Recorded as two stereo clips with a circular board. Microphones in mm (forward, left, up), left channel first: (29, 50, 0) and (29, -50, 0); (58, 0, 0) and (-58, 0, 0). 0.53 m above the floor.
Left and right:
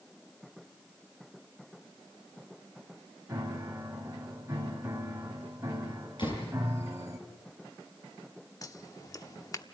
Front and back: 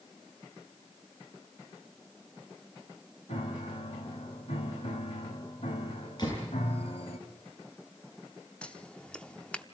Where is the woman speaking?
No woman speaking in this recording.